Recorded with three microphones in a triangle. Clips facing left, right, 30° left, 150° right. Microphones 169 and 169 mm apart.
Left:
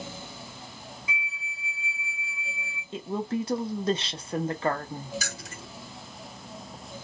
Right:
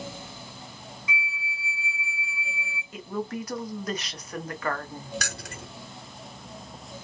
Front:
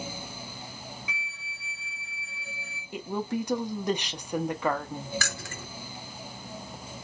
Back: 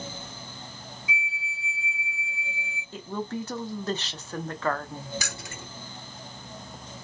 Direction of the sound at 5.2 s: 80° right.